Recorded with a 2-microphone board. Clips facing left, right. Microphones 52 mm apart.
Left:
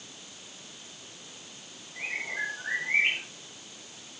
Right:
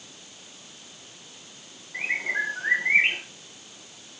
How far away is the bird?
About 9 m.